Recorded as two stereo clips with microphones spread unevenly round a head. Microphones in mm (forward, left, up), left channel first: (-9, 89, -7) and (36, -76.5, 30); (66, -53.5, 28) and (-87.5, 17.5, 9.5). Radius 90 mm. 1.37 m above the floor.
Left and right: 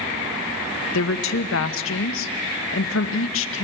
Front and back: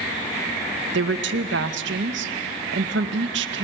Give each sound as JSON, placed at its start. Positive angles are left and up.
{"t": 0.9, "sound": "a woman speaking", "azimuth_deg": 125, "distance_m": 1.2}